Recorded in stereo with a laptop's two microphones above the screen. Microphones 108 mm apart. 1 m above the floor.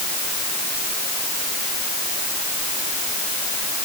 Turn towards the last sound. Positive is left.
No sound to turn to.